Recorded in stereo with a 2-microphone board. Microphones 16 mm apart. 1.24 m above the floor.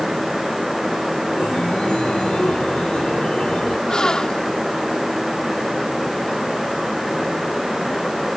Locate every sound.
1.4 s a chime: 70° left (ahead or behind)
3.9 s a gasp: 50° left (ahead or behind)